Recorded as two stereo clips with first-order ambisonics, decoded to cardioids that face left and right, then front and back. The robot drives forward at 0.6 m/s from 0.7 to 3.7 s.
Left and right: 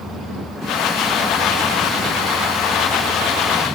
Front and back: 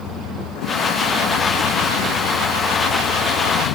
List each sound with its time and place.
0.0 s a vehicle: straight ahead